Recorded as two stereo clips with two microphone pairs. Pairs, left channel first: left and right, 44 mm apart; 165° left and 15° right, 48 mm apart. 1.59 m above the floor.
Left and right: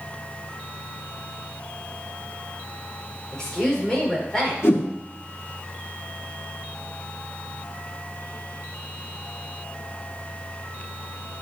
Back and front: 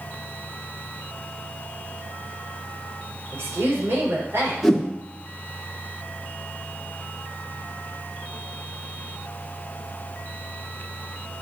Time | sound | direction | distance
3.3 | a woman speaking | 15° left | 5.5 m
4.6 | a whoosh | 70° left | 1.8 m